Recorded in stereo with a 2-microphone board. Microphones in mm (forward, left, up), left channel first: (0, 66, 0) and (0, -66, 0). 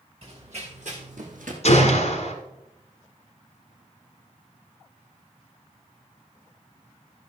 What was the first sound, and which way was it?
Running footsteps, 50° right (ahead or behind).